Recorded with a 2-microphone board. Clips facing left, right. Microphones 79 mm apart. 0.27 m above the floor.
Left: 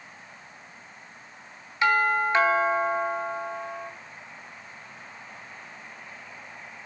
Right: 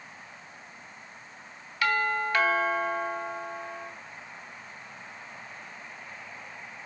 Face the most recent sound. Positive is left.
turn(degrees=25)  # may be behind; listen again after turning